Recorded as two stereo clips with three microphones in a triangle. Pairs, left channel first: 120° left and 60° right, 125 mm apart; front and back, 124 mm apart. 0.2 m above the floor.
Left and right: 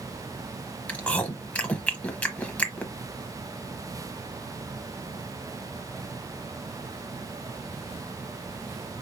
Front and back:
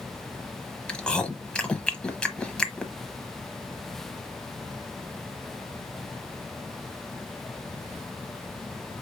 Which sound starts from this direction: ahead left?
Chewing, at 0.9 s.